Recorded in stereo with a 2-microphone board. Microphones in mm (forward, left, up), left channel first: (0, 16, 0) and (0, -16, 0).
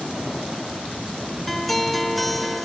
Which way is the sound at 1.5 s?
5° left (ahead or behind).